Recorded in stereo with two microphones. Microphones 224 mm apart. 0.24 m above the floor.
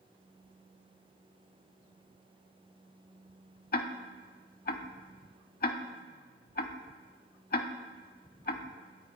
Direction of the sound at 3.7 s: 45° left (ahead or behind).